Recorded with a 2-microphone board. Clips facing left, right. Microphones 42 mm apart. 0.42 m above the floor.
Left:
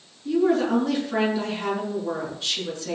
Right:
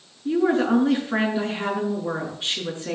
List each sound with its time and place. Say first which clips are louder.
0.2 s a woman speaking: right 1 dB; 30° right (ahead or behind), 6.5 m